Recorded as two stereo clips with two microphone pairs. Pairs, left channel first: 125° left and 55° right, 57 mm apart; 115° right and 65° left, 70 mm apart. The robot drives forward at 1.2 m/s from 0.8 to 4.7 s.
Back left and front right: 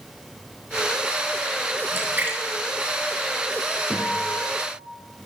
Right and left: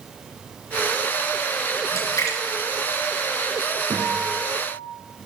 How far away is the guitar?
About 6 m.